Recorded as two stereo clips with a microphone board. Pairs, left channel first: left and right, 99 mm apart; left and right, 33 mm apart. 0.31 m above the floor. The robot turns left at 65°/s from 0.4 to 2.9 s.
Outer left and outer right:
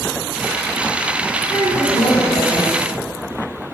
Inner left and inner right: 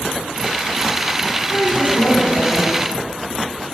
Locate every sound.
1.5 s a woman speaking: 135° left, 3 m; by 2.7 s 60° left, 3 m